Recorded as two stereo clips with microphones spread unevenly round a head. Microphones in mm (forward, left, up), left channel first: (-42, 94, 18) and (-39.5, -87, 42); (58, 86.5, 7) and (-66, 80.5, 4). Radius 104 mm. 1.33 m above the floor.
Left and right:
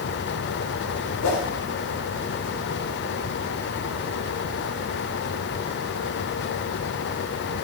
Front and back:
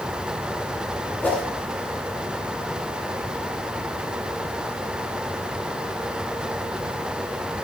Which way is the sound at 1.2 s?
80° left.